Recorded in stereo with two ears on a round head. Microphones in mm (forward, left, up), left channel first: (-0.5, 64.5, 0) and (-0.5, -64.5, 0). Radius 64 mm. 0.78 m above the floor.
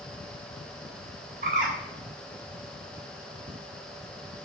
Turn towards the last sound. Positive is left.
turn(degrees=-65)  # may be behind; listen again after turning